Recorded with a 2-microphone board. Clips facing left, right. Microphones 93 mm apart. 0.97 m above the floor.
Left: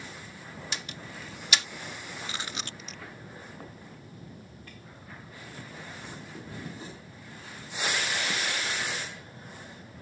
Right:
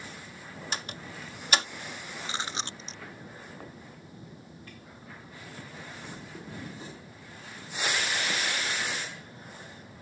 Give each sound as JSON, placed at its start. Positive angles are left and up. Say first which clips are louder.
{"t": 0.7, "sound": "a door slam", "louder": "right 4 dB", "side_deg": -40}
{"t": 2.2, "sound": "chewing", "louder": "right 4 dB", "side_deg": -30}